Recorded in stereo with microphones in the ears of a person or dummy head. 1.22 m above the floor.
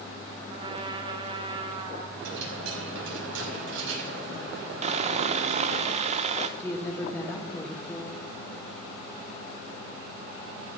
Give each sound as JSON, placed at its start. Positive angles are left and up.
{"t": 0.5, "sound": "a trumpet", "side_deg": -35, "distance_m": 1.8}
{"t": 2.2, "sound": "a dropped coin", "side_deg": -80, "distance_m": 4.5}
{"t": 4.8, "sound": "sawing", "side_deg": -35, "distance_m": 0.8}
{"t": 6.6, "sound": "a woman speaking", "side_deg": 5, "distance_m": 1.7}